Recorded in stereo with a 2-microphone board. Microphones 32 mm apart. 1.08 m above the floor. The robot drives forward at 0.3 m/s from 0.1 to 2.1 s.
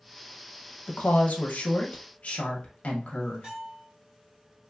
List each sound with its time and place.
0.9 s a woman speaking: 75° left (ahead or behind), 0.5 m; by 3.5 s 50° left (ahead or behind), 0.7 m
3.4 s a bell: 25° right (ahead or behind), 1.2 m